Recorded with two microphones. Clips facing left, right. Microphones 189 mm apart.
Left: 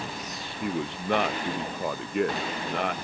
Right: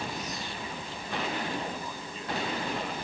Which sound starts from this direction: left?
A man speaking, at 0.6 s.